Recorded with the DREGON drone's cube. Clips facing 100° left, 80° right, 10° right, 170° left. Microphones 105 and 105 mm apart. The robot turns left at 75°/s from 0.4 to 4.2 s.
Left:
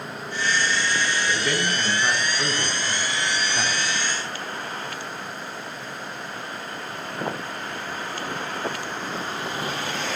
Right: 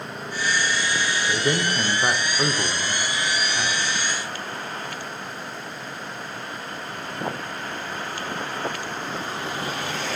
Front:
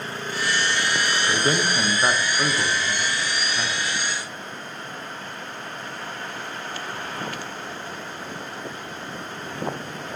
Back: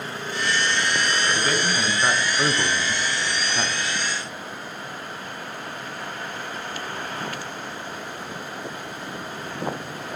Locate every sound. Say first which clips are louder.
1.3 s a man speaking: right 2 dB, front 1 dB; 25° right, 1.0 m; by 4.0 s 135° left, 1.0 m